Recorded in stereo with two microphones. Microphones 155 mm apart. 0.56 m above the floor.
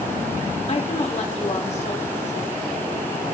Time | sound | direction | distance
0.7 | a woman speaking | 45° left (ahead or behind) | 1.6 m